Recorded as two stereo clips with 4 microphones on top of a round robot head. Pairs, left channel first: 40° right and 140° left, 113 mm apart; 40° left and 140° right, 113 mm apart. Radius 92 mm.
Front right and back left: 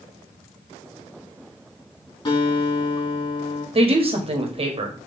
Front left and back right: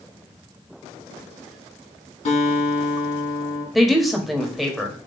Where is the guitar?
10° left, 5 m.